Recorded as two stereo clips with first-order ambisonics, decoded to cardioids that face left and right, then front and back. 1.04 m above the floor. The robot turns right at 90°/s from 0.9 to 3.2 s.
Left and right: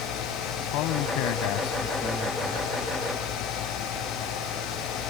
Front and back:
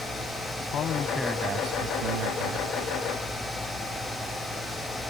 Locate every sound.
0.6 s a man speaking: 60° left; by 2.7 s 145° right